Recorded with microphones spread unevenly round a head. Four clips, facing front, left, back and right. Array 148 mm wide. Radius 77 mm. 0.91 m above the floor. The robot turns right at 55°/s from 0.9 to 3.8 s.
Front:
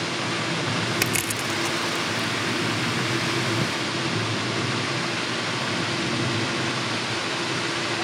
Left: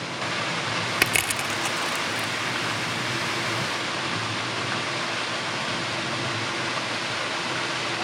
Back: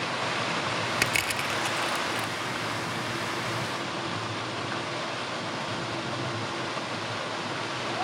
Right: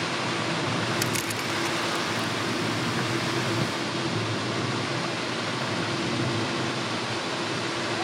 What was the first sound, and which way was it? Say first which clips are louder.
Crushing: left 2 dB, front 2 dB; 75° left.